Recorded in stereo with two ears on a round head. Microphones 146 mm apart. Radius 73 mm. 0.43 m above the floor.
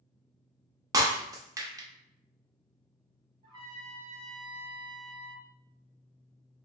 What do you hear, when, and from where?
0.9 s breaking glass: 20° right (ahead or behind), 0.6 m
3.4 s a trumpet: 30° right (ahead or behind), 1.1 m